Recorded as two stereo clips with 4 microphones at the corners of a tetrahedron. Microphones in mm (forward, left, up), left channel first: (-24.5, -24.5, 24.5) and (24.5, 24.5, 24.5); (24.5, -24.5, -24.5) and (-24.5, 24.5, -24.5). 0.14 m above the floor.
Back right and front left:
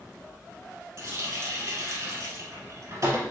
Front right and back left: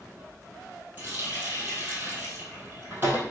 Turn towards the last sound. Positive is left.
turn(degrees=80)